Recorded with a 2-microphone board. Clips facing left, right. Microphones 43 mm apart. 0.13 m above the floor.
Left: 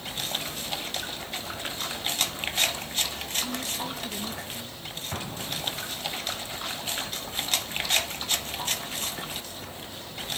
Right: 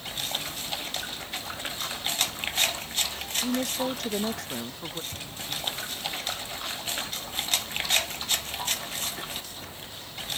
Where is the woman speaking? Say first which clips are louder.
Right 5 dB; 60° right (ahead or behind); by 5.0 s 70° right (ahead or behind).